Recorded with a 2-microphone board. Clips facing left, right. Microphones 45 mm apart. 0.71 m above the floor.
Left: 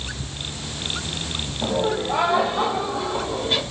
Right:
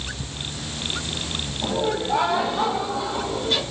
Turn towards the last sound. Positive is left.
turn(degrees=20)  # may be behind; listen again after turning